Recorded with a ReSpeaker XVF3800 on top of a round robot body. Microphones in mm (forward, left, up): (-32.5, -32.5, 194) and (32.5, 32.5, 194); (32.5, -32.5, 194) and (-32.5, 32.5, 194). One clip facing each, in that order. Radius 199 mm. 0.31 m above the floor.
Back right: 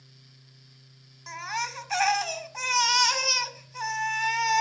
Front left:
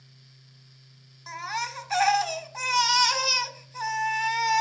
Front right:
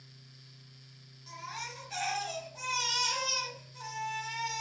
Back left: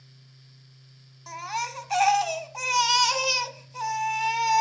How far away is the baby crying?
About 1.3 m.